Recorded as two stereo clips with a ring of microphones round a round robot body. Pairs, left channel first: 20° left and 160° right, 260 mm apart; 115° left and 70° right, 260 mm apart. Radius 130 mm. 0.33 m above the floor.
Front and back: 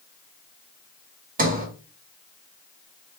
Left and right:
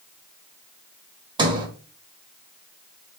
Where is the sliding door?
130° right, 1.1 m.